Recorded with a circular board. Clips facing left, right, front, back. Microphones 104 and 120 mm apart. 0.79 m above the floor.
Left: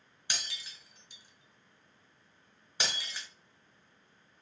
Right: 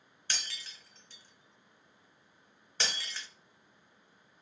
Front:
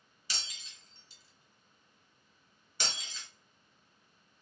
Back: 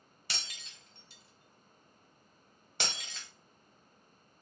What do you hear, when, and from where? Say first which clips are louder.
0.3 s breaking glass: even, back 1 dB; 165° left, 0.9 m